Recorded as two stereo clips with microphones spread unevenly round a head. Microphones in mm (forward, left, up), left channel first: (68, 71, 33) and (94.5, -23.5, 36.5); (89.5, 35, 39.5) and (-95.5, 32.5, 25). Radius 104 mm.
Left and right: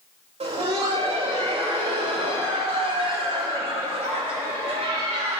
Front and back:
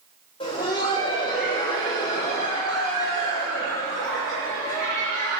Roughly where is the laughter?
Ahead right.